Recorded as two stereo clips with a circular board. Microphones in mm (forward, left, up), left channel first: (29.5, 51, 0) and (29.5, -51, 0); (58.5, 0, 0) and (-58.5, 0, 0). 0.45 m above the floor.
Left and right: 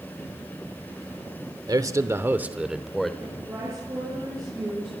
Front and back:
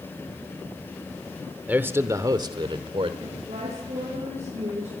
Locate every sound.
1.7 s a man speaking: 110° right, 1.1 m; by 3.1 s 175° left, 1.2 m
3.2 s a woman speaking: 145° right, 9 m